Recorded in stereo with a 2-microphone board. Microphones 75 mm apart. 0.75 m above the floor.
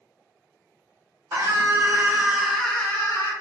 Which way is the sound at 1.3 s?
40° right (ahead or behind).